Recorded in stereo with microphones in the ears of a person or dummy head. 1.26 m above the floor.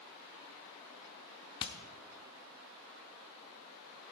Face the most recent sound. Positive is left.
turn(degrees=20)  # may be behind; listen again after turning